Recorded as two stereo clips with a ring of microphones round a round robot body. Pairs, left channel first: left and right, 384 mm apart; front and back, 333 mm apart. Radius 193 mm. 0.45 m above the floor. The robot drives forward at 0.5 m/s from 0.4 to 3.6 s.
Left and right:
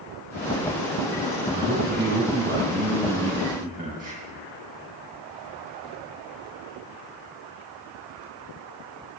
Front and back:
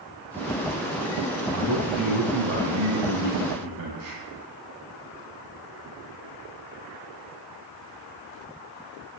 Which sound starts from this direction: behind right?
A man speaking, at 1.5 s.